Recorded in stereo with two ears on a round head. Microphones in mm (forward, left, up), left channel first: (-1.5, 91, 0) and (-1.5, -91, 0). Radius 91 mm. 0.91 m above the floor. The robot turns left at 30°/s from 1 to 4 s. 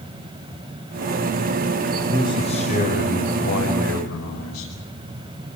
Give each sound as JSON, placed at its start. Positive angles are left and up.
{"t": 2.1, "sound": "a man speaking", "azimuth_deg": 160, "distance_m": 5.0}